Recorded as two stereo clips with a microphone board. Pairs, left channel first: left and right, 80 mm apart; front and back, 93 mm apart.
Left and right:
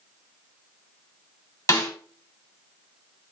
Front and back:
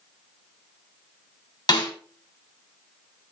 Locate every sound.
1.7 s a snare drum: 40° left, 2.5 m